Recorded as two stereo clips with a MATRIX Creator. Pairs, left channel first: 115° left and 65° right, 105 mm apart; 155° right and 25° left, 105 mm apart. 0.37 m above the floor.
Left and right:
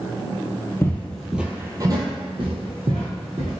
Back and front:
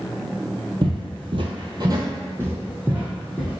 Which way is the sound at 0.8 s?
50° left.